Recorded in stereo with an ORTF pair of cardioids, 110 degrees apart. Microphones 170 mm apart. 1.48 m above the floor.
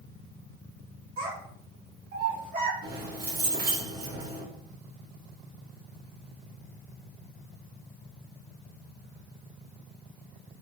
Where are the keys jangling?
70° right, 1.8 m.